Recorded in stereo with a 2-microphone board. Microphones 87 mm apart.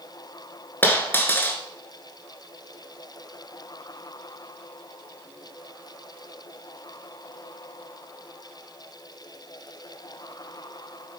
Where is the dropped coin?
25° left (ahead or behind), 1.1 m.